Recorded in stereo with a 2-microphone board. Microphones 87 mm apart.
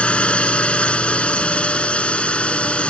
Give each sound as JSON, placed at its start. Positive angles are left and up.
{"t": 0.0, "sound": "a drone", "side_deg": 15}